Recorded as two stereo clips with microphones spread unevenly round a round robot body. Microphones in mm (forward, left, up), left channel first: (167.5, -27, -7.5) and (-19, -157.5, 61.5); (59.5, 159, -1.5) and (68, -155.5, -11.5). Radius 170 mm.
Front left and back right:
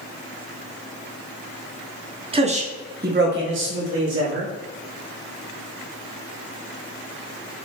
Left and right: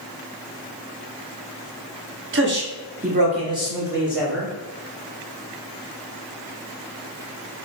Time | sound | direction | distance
2.3 | a man speaking | 70° right | 1.1 m